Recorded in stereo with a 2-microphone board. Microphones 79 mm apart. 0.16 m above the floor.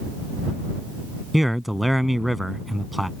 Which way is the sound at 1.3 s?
Centre (ahead or behind).